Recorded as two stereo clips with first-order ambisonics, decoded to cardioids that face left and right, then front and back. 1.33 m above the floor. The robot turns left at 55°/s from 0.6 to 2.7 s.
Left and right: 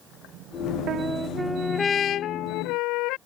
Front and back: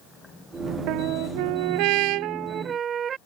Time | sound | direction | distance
0.9 | a trumpet | 145° right | ?